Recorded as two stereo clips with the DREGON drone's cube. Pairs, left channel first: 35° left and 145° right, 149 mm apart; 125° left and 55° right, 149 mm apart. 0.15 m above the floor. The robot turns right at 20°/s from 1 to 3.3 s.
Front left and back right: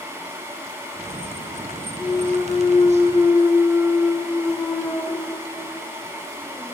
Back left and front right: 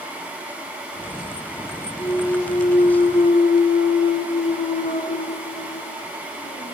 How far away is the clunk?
About 2.5 m.